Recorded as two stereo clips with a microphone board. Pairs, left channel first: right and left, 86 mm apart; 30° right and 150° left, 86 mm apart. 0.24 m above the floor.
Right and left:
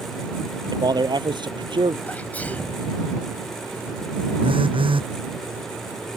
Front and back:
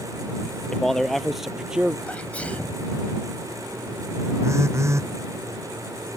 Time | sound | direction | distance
0.7 | a man speaking | 50° left | ?
2.1 | a sneeze | 70° right | ?
4.4 | a phone buzzing | 95° left | ?